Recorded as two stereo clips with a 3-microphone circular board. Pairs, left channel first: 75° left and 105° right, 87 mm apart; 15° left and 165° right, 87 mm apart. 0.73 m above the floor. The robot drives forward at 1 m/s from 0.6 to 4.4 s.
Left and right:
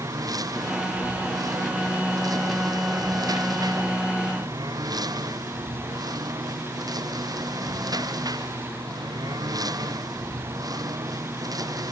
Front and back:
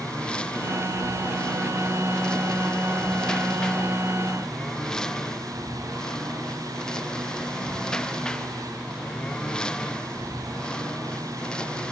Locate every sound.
0.0 s a lawn mower: 65° right